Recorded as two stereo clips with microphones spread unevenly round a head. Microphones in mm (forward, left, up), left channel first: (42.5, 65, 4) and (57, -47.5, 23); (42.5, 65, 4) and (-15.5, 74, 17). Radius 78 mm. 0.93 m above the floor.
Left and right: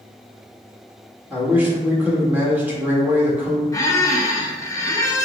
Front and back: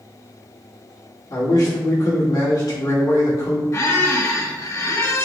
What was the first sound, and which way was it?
A man speaking, 5° right.